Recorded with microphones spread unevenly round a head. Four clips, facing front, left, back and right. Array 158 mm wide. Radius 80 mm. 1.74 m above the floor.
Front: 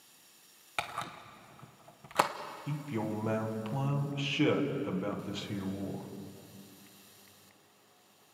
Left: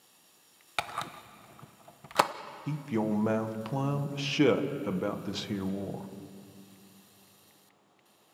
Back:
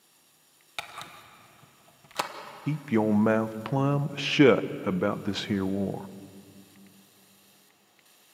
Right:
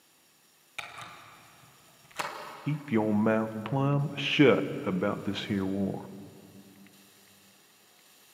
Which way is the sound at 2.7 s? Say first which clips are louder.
Right 3 dB, back 11 dB; 165° right.